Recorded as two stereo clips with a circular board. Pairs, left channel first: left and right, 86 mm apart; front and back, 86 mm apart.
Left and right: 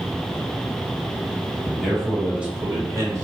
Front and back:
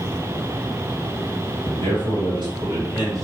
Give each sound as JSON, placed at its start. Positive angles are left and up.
{"t": 1.6, "sound": "a man speaking", "azimuth_deg": 180, "distance_m": 2.0}